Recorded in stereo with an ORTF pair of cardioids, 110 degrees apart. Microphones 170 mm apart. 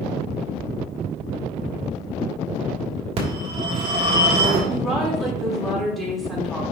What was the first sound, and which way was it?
A phone ringing, 40° right.